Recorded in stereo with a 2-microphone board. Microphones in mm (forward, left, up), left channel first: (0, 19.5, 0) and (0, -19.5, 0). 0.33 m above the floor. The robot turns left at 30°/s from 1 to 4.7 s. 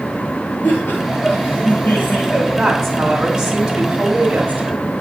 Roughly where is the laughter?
Left.